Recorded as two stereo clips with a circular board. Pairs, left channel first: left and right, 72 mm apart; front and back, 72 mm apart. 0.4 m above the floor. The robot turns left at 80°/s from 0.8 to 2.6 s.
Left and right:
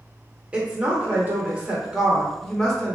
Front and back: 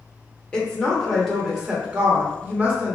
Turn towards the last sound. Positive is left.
turn(degrees=165)